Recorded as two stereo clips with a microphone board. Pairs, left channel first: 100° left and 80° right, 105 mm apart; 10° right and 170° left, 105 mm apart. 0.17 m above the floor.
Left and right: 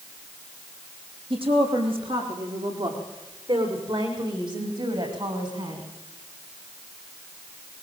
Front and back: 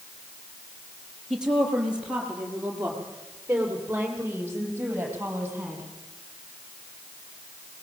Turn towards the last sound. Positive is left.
turn(degrees=-120)